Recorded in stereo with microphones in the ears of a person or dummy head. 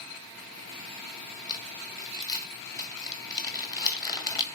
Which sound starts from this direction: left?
Crumpling, at 1.5 s.